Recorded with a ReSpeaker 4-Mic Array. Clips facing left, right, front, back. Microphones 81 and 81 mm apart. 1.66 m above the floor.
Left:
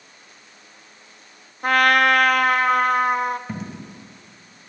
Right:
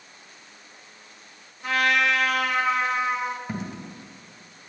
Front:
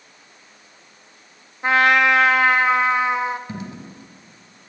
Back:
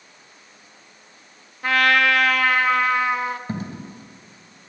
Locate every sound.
1.6 s a trumpet: 65° left, 0.6 m
3.5 s a dropped coin: straight behind, 1.9 m